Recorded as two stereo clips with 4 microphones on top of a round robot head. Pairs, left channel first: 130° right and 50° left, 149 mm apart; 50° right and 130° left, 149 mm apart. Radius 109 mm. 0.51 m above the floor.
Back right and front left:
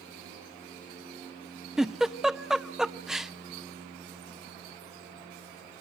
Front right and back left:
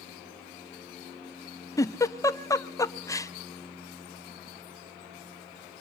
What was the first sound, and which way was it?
A giggle, 35° right.